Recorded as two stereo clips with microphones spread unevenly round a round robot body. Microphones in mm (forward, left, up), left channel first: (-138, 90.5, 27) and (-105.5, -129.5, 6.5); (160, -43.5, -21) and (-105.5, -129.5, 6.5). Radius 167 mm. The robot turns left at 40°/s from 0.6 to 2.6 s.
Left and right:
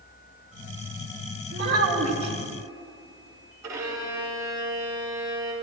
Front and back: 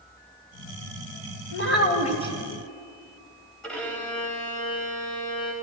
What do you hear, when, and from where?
1.5 s a child speaking: 25° right, 2.5 m; by 2.3 s 60° right, 2.5 m
3.6 s a violin: 65° right, 3 m